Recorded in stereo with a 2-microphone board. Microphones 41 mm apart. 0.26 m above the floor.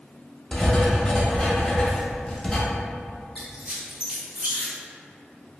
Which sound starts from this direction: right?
A squeak, at 3.4 s.